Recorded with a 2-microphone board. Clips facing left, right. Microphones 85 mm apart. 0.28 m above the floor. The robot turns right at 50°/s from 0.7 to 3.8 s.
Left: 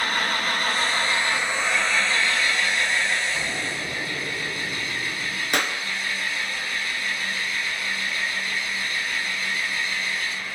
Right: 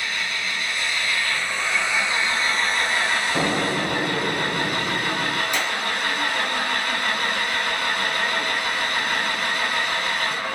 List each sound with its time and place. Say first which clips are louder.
0.0 s an engine running: left 4 dB; 130° left, 1.7 m; by 10.6 s 75° right, 1.7 m
3.4 s an explosion: right 7 dB; 60° right (ahead or behind), 3 m; by 5.4 s 40° right (ahead or behind), 3 m
5.5 s a clap: even; 65° left (ahead or behind), 2.5 m